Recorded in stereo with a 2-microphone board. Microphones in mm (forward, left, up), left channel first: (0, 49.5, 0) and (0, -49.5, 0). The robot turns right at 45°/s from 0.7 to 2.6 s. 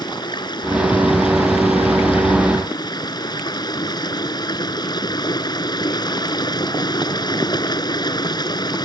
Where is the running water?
45° left; by 8.8 s 135° left.